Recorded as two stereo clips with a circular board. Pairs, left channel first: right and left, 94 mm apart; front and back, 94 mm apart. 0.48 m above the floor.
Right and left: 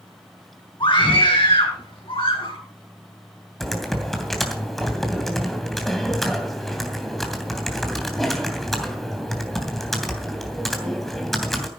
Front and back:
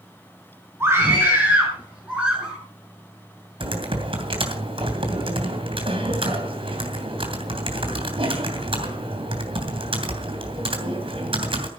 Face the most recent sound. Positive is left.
turn(degrees=180)